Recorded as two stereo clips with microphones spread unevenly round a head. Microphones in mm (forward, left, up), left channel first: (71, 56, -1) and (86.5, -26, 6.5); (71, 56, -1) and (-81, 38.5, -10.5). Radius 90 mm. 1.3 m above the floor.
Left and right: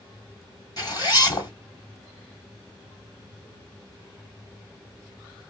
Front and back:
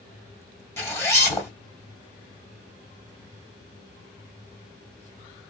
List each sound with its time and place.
0.8 s a zipper: 75° left, 1.8 m